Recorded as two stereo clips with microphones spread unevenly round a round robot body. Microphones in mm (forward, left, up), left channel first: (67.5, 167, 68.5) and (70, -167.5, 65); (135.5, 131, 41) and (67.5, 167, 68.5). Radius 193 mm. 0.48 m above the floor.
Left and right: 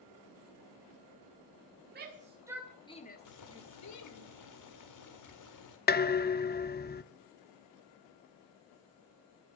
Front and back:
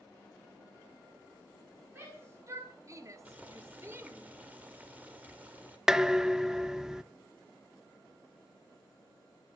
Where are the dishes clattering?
45° left, 0.6 m.